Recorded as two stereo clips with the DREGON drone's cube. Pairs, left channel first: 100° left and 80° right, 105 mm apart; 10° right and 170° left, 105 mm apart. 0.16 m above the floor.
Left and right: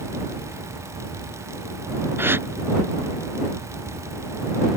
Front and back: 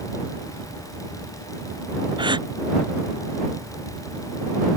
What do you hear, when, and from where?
2.2 s a gasp: 150° right